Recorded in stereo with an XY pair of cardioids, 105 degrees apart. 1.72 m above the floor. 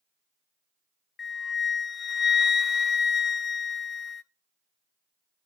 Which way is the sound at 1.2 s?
35° left.